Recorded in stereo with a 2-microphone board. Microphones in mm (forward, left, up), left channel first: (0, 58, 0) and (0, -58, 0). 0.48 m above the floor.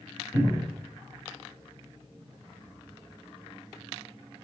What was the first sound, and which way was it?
A cupboard door, 30° right (ahead or behind).